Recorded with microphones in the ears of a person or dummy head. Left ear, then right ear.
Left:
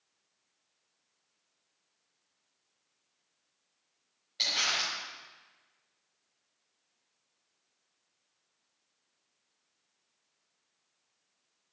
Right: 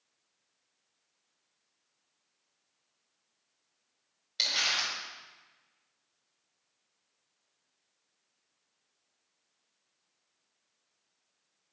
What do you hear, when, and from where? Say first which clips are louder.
4.4 s crumpling: right 1 dB; 30° right (ahead or behind), 5 m